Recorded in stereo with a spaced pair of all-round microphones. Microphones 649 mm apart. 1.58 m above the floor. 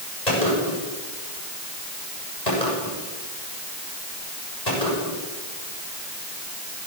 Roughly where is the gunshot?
Left.